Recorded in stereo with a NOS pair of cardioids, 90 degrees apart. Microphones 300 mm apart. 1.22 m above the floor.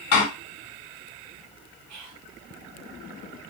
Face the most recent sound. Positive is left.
turn(degrees=-65)